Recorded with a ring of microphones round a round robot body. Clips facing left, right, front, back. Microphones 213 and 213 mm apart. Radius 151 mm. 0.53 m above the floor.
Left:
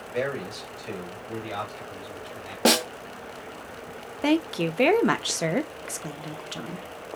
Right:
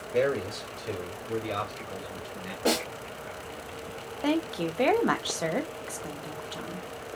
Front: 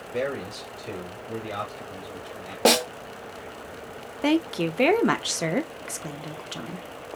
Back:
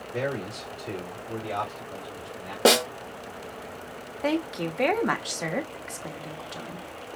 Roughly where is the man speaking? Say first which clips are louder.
Right 3 dB, front 1 dB; right.